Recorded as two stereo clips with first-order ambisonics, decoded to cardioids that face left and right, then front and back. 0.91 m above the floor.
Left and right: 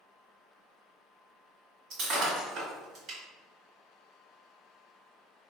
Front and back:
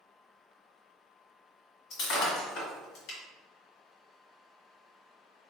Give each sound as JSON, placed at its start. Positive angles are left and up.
{"t": 1.9, "sound": "breaking glass", "azimuth_deg": -40, "distance_m": 1.8}